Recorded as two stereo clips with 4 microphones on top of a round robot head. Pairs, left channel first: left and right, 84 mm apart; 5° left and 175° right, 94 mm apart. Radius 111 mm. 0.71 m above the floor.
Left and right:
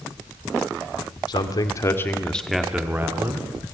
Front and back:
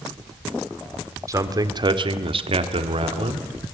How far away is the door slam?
I don't hear a door slam.